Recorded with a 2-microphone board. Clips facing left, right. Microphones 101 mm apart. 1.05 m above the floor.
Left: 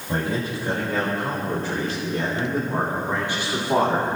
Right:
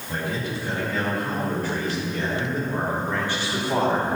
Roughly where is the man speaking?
Left.